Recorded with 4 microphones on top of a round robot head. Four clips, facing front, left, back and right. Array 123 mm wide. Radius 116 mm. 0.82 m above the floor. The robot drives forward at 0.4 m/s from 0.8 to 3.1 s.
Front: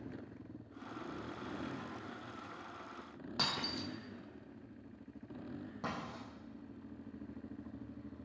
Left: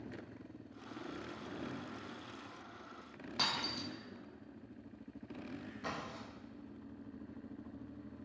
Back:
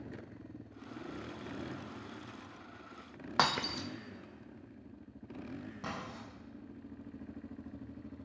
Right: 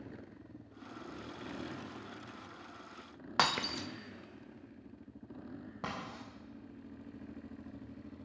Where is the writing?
60° right, 7.5 m.